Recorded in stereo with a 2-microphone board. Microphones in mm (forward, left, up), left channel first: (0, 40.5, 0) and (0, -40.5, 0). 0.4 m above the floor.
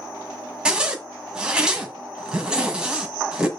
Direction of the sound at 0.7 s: 10° right (ahead or behind).